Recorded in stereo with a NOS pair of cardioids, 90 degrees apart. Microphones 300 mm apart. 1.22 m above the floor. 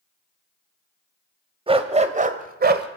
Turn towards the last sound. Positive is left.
turn(degrees=-35)